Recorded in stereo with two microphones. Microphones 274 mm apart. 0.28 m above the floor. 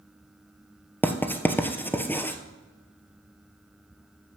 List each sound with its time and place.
1.0 s writing: 5° left (ahead or behind), 0.9 m